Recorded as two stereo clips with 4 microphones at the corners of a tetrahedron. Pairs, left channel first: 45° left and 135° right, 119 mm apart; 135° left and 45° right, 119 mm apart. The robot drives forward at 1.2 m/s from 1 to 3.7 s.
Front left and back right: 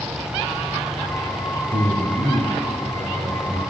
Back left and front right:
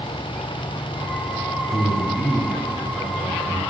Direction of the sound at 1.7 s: 165° right.